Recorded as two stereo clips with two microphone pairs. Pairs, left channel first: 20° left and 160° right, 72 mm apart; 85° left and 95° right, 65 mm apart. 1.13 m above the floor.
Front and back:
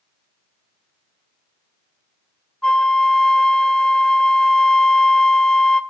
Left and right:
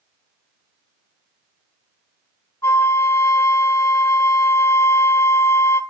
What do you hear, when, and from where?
2.6 s a flute: 90° left, 0.7 m